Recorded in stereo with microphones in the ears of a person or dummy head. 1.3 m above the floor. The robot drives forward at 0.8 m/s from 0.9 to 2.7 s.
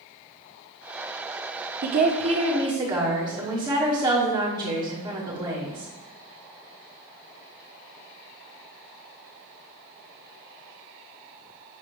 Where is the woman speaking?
50° right (ahead or behind), 0.7 m; by 5.9 s 25° right (ahead or behind), 1.3 m.